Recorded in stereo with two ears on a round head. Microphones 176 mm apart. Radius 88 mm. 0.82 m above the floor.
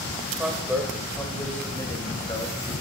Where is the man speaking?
10° right (ahead or behind), 3 m; by 2.8 s 25° left (ahead or behind), 4 m.